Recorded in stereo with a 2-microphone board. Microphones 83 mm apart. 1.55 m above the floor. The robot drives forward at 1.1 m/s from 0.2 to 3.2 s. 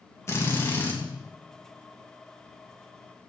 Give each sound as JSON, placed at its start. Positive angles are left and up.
{"t": 0.3, "sound": "a drill", "side_deg": 35, "distance_m": 2.5}